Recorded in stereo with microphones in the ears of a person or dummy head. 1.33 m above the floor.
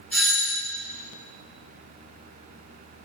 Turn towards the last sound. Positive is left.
turn(degrees=5)  # may be behind; listen again after turning